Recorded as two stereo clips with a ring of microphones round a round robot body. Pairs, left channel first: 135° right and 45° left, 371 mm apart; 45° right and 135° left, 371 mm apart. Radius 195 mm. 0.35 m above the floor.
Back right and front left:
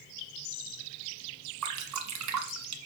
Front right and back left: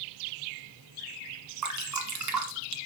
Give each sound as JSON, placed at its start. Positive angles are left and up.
{"t": 1.6, "sound": "dripping", "azimuth_deg": 90, "distance_m": 1.7}